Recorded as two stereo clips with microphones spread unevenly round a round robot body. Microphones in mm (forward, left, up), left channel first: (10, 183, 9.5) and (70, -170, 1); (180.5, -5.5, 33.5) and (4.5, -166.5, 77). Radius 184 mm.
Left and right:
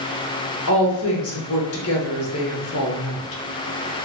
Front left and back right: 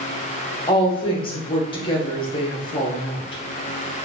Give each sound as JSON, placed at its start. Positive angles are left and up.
{"t": 0.7, "sound": "a woman speaking", "azimuth_deg": 80, "distance_m": 0.9}